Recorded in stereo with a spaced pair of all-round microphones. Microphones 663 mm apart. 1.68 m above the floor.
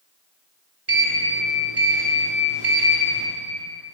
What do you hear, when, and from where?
0.9 s a sliding door: 45° right (ahead or behind), 3.5 m